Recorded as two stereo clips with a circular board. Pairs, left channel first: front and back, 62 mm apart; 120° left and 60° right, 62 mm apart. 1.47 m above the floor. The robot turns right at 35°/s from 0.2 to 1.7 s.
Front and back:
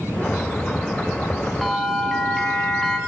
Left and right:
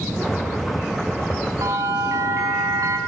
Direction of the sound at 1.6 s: 90° right.